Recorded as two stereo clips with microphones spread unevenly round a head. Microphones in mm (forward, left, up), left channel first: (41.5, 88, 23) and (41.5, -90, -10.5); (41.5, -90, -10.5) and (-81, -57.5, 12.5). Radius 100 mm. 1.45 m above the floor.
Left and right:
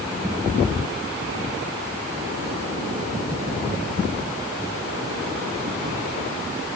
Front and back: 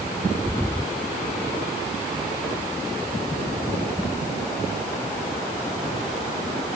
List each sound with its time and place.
Only background noise.